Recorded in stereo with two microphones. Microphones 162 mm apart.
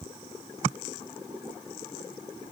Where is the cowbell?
No cowbell in this recording.